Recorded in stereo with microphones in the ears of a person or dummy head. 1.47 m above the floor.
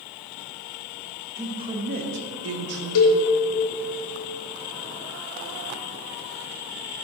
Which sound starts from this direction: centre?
A man speaking, at 1.4 s.